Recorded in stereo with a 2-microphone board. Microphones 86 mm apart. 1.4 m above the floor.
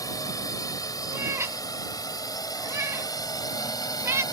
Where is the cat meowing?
30° right (ahead or behind).